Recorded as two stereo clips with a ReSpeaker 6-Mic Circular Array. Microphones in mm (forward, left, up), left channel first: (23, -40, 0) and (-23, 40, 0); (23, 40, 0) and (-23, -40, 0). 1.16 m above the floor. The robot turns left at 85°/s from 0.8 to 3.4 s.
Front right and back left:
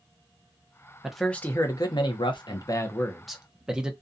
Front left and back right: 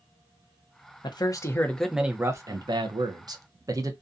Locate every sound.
1.0 s a man speaking: 40° left, 0.6 m; by 3.9 s 160° right, 0.6 m